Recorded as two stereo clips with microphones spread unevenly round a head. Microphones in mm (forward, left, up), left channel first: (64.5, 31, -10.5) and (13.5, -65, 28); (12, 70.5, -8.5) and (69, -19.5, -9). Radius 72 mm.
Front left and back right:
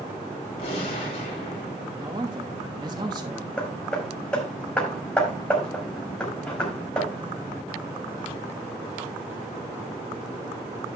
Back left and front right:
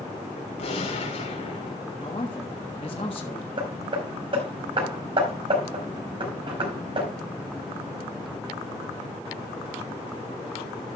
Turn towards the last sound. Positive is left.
turn(degrees=-20)